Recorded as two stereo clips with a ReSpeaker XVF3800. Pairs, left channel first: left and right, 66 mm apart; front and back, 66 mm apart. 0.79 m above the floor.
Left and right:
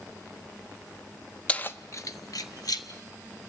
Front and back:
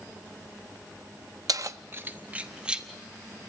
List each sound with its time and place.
1.5 s keys jangling: 160° left, 0.5 m; by 2.9 s 100° left, 1.3 m